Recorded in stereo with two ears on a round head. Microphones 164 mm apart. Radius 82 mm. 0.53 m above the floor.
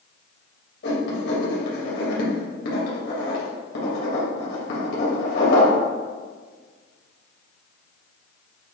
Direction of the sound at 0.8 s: 60° left (ahead or behind).